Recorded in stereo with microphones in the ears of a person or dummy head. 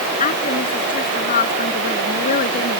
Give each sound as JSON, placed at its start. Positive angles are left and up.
{"t": 0.2, "sound": "a woman speaking", "side_deg": 35}